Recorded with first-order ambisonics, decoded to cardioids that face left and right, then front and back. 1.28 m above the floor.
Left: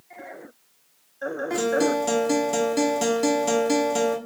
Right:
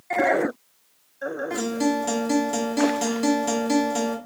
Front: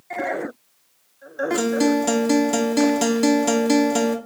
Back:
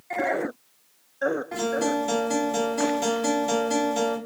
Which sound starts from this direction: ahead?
A guitar, at 1.5 s.